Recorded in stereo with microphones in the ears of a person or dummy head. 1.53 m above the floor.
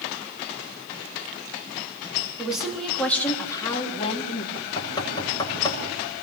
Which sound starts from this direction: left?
Knocking, at 4.5 s.